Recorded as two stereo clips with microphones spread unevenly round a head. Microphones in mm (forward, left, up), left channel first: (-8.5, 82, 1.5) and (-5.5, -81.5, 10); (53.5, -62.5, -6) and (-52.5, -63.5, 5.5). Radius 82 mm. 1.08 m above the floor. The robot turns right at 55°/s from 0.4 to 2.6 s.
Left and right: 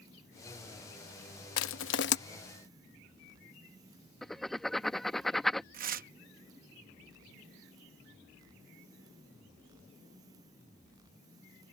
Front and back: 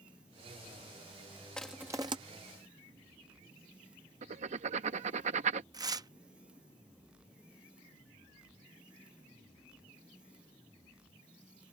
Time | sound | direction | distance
1.6 | crushing | 85° left | ?
4.2 | writing | straight behind | ?
5.7 | tearing paper | 125° right | ?